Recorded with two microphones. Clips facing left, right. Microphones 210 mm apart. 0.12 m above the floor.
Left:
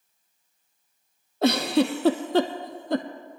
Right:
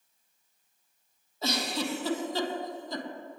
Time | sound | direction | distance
1.4 | a giggle | 65° left (ahead or behind) | 0.9 m